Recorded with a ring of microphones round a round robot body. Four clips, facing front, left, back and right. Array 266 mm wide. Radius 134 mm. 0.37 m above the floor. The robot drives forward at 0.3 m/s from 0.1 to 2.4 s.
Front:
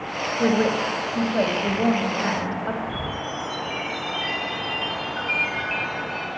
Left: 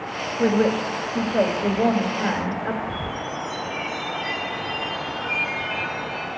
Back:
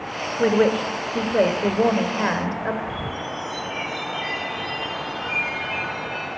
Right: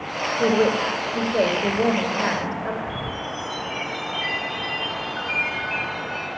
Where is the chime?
55° right, 6.5 m.